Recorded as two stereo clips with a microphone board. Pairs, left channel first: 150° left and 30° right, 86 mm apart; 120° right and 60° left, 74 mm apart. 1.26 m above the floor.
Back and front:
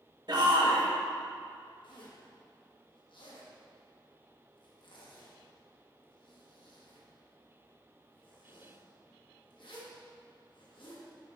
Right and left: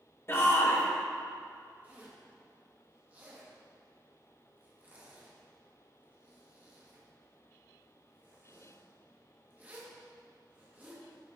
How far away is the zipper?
About 1.4 m.